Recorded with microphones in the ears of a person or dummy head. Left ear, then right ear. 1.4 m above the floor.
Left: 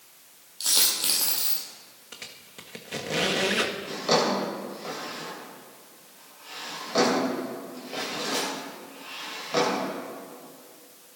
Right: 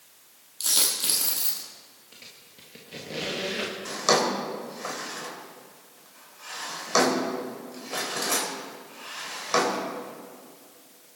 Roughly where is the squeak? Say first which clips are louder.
Left 6 dB; left.